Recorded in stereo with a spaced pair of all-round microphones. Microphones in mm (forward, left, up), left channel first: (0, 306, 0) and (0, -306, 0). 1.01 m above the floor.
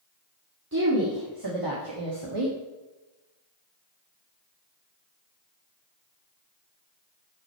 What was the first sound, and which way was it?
A woman speaking, 25° right (ahead or behind).